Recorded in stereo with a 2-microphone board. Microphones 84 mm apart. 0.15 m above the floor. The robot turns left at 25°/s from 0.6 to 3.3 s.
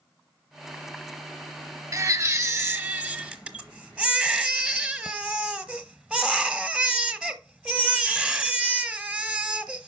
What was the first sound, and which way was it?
A baby crying, 135° right.